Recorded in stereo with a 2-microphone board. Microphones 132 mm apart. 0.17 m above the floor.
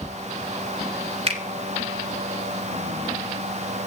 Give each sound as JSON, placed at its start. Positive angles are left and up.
{"t": 1.3, "sound": "a finger snap", "side_deg": -45, "distance_m": 1.6}